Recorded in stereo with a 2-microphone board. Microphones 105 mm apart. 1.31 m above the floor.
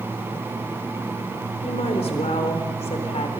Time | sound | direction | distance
1.6 | a woman speaking | 85° left | 4 m